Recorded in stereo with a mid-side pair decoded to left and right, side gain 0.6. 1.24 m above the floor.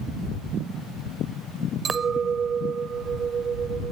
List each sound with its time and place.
1.9 s a clink: 35° right